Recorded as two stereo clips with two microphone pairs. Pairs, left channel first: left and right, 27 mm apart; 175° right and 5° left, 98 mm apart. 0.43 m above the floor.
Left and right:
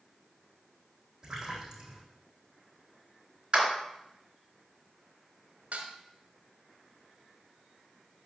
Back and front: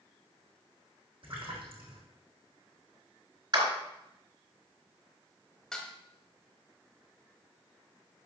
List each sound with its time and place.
1.2 s a splash: 25° right, 4 m
3.5 s a clap: 35° right, 4 m
5.7 s dishes clattering: 90° right, 1.4 m